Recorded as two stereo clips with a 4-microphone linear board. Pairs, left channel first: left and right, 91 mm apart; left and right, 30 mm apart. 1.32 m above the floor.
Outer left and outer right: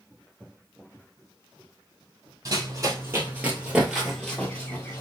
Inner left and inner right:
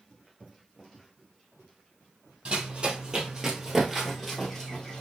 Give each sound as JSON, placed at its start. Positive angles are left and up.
{"t": 2.5, "sound": "running footsteps", "side_deg": -40, "distance_m": 1.7}